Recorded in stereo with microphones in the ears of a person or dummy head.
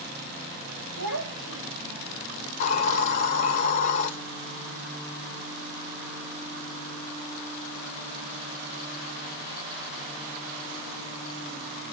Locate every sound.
1.0 s a child speaking: 75° right (ahead or behind), 6.5 m; by 2.1 s 70° right (ahead or behind), 6 m
2.5 s a hiss: 40° left (ahead or behind), 1.2 m